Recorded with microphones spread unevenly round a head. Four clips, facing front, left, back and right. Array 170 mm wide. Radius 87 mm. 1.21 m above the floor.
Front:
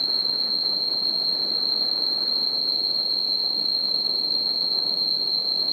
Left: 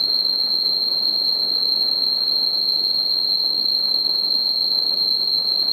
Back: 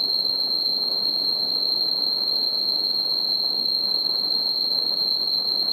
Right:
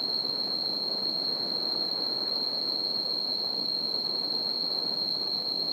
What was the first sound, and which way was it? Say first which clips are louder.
An insect: left 4 dB, even; 160° left.